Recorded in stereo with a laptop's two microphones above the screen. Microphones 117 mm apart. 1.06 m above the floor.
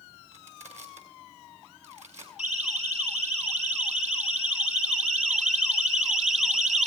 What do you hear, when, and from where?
0.3 s crushing: 70° right (ahead or behind), 5.5 m
2.4 s a siren: 75° right (ahead or behind), 7 m